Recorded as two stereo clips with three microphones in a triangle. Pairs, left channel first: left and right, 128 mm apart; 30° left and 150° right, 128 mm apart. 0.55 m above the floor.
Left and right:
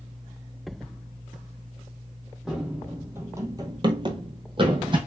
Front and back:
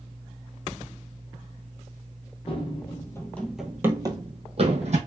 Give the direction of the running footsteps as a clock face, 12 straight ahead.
12 o'clock.